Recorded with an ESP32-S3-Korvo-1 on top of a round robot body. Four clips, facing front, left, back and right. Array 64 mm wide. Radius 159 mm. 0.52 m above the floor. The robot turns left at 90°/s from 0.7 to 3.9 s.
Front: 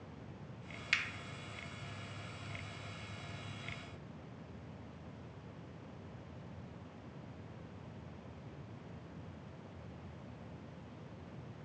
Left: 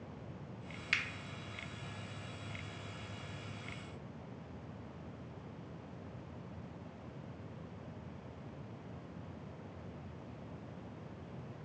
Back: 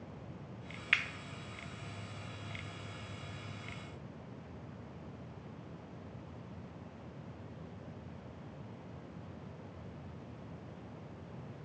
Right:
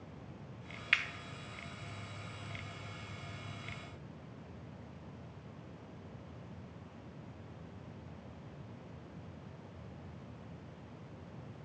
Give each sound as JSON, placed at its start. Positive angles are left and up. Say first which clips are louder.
{"t": 0.9, "sound": "a finger snap", "louder": "right 4 dB, back 4 dB", "azimuth_deg": -135, "distance_m": 0.5}